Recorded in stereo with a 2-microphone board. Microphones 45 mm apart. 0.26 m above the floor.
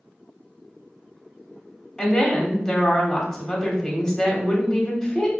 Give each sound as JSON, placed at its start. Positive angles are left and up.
{"t": 2.0, "sound": "a woman speaking", "side_deg": 15, "distance_m": 0.9}